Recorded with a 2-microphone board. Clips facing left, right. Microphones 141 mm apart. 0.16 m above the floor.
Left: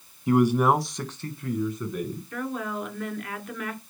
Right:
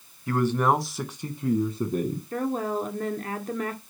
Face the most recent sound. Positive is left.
turn(degrees=-35)  # may be behind; listen again after turning